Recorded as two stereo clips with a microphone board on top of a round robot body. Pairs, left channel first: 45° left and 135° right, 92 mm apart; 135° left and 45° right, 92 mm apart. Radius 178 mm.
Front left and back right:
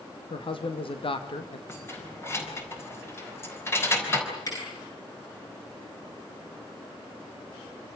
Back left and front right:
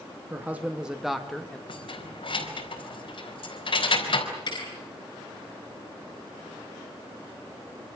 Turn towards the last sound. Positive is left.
turn(degrees=100)